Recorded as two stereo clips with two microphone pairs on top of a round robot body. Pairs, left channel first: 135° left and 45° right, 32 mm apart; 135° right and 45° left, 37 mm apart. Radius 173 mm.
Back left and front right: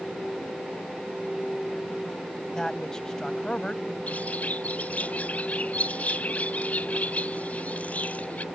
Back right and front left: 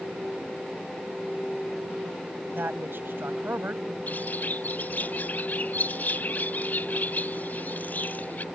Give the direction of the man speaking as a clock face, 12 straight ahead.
10 o'clock.